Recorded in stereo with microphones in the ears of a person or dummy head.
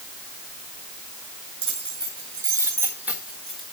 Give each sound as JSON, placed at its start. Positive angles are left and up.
{"t": 1.6, "sound": "keys jangling", "side_deg": -35, "distance_m": 1.9}